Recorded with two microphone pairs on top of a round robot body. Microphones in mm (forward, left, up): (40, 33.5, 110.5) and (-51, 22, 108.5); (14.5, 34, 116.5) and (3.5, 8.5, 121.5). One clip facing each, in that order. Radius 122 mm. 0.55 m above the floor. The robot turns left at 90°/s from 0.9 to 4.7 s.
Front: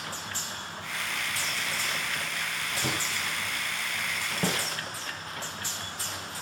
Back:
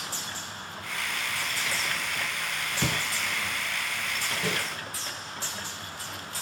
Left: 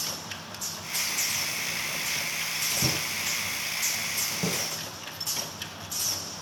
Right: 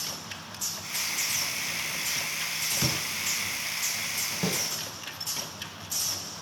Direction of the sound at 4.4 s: 45° right.